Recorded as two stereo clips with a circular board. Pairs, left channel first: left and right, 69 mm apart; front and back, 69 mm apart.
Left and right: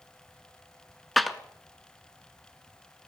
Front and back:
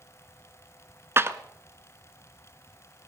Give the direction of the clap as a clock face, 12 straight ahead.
6 o'clock.